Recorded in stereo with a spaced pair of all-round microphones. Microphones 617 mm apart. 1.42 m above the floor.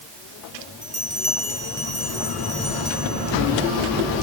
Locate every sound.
0.8 s a bell: 35° right (ahead or behind), 6.5 m